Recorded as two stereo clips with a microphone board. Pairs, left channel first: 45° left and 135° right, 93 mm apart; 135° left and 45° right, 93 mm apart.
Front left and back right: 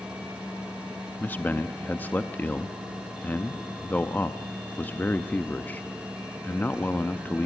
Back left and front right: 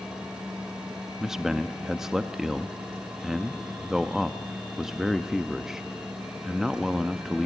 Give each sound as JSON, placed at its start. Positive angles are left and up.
{"t": 1.2, "sound": "a man speaking", "azimuth_deg": 30, "distance_m": 0.6}